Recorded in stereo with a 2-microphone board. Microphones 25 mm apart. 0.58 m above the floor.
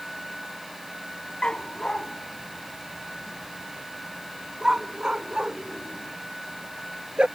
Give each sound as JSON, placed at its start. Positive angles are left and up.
{"t": 1.4, "sound": "a dog barking", "side_deg": 40}